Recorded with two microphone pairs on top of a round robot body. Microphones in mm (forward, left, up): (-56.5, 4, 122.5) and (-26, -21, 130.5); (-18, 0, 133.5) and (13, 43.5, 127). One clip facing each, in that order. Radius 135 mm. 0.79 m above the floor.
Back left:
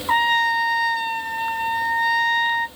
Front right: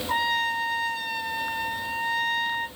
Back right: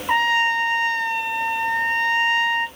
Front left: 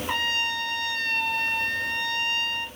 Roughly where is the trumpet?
Behind.